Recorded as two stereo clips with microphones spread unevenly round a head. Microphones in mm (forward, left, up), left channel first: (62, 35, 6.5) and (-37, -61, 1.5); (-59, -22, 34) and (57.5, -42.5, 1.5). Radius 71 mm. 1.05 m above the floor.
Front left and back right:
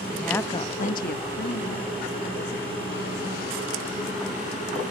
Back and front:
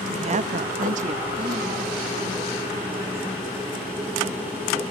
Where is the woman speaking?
50° right, 1.2 m; by 3.4 s 65° left, 4.5 m.